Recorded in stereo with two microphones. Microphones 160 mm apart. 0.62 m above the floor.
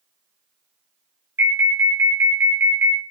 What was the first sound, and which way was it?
An alarm, 15° right (ahead or behind).